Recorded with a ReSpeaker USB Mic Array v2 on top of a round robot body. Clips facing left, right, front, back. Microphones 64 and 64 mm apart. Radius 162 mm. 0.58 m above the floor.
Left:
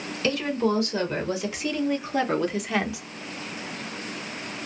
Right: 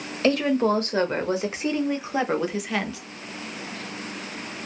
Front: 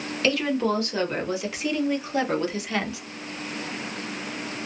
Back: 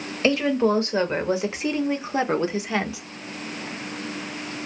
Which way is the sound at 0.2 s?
120° right.